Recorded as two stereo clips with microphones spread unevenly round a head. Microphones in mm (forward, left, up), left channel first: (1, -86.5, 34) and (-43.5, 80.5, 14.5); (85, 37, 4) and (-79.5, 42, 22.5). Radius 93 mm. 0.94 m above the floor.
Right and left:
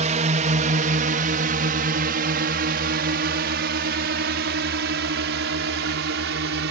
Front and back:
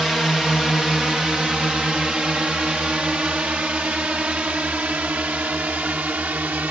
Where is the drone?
85° left; by 6.7 s 95° left.